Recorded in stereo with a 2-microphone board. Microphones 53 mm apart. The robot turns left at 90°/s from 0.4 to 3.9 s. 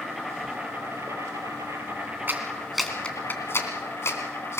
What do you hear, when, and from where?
0.0 s an insect: straight ahead, 4.5 m; by 4.6 s 45° left, 4.5 m
2.3 s a clap: 40° right (ahead or behind), 2.5 m; by 4.6 s 60° left (ahead or behind), 2.5 m